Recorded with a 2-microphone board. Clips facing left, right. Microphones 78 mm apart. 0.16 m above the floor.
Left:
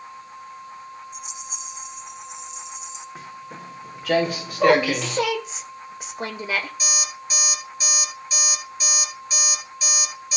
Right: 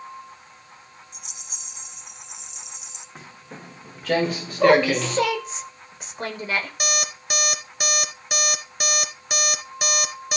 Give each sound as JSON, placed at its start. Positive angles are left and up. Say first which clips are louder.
{"t": 1.1, "sound": "a rattle", "louder": "left 10 dB", "side_deg": -60, "distance_m": 1.4}
{"t": 3.1, "sound": "footsteps", "louder": "left 5 dB", "side_deg": 5, "distance_m": 5.0}
{"t": 4.6, "sound": "a woman speaking", "louder": "right 1 dB", "side_deg": 10, "distance_m": 8.0}
{"t": 6.8, "sound": "an alarm clock", "louder": "right 4 dB", "side_deg": -65, "distance_m": 1.6}